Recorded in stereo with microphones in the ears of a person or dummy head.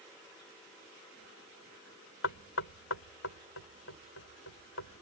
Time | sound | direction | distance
2.2 | knocking | 80° left | ?